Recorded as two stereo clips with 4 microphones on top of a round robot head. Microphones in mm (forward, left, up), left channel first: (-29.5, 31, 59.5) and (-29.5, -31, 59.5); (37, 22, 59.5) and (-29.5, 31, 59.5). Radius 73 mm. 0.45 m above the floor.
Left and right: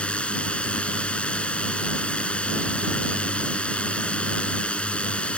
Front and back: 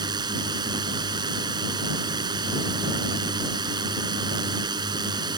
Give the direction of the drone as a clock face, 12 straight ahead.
7 o'clock.